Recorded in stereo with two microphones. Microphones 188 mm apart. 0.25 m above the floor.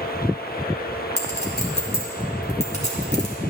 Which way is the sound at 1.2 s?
40° left (ahead or behind).